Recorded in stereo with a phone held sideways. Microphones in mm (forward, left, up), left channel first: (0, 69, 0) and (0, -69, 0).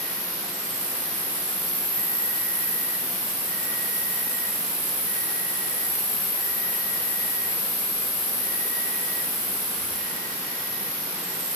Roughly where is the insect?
Left.